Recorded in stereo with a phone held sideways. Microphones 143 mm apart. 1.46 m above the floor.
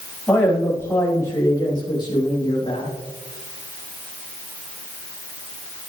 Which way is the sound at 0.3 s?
10° left (ahead or behind).